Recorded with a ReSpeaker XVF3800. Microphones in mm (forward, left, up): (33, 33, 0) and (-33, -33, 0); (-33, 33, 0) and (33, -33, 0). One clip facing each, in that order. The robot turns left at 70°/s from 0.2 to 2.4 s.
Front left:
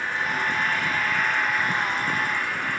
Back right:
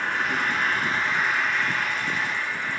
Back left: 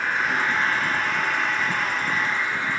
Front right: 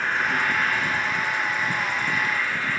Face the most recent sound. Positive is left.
turn(degrees=70)